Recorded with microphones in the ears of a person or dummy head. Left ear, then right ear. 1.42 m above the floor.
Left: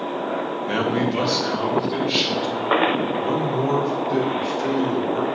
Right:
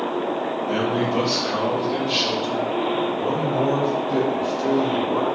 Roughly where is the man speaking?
Left.